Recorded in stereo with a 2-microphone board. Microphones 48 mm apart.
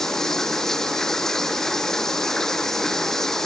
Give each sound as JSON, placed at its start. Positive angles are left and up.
{"t": 0.0, "sound": "running water", "side_deg": 10}